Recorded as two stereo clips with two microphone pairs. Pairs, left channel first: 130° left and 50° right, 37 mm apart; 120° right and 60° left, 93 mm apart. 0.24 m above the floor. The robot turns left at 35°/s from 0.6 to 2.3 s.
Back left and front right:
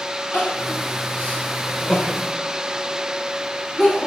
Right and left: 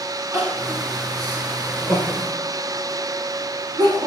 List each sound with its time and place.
0.3 s crying: 115° left, 1.4 m; by 4.1 s 55° left, 1.4 m